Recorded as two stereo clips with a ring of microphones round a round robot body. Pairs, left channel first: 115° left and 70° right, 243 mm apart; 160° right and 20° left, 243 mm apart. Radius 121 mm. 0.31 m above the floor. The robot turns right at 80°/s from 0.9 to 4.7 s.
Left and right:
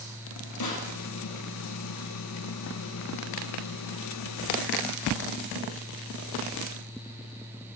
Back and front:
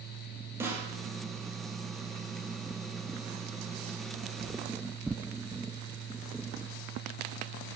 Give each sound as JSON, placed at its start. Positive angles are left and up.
{"t": 0.6, "sound": "a snare drum", "azimuth_deg": 105, "distance_m": 4.0}